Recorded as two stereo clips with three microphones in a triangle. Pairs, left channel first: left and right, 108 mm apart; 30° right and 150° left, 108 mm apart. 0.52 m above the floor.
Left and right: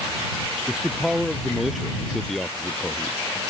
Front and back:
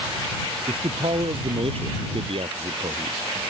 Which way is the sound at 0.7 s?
175° right.